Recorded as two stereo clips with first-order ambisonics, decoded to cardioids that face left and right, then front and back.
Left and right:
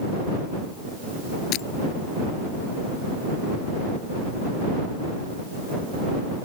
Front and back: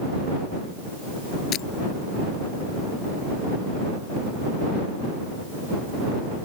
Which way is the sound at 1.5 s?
50° left.